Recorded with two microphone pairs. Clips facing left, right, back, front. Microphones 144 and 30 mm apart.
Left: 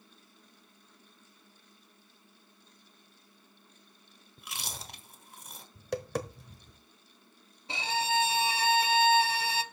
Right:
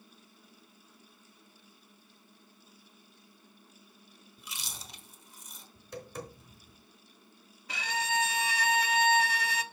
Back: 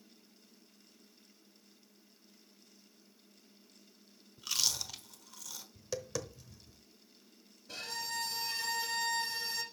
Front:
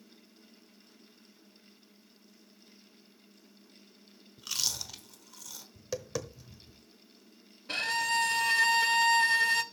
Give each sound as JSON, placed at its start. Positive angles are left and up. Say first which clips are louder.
{"t": 4.4, "sound": "chewing", "louder": "left 4 dB, even", "azimuth_deg": 95, "distance_m": 1.3}
{"t": 5.8, "sound": "tapping", "louder": "left 8 dB, front 3 dB", "azimuth_deg": 85, "distance_m": 1.0}
{"t": 7.7, "sound": "a violin", "louder": "left 3 dB, front 11 dB", "azimuth_deg": 30, "distance_m": 0.8}